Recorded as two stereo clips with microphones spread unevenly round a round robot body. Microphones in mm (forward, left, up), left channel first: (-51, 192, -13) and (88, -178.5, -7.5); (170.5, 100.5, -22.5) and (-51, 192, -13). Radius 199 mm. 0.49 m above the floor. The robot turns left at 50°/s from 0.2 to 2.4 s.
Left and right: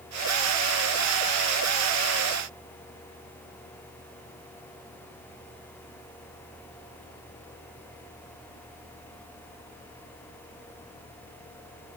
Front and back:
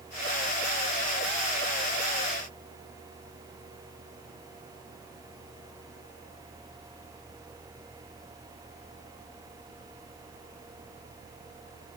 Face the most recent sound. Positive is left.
No sound to turn to.